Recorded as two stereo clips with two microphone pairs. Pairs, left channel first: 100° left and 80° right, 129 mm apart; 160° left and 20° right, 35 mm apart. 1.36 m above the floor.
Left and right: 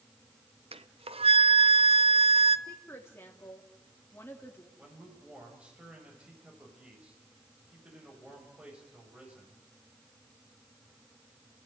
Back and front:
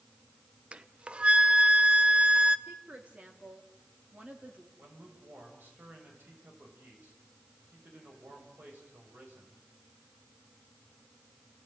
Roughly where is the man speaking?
Ahead.